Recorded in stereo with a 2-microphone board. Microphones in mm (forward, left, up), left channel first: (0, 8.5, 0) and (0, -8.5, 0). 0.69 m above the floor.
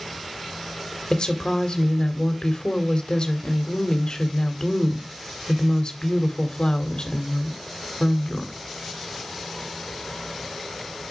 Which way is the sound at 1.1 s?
55° left (ahead or behind).